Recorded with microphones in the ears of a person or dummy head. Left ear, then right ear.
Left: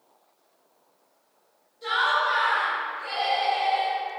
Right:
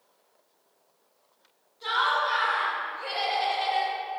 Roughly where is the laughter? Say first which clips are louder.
Left 2 dB; right.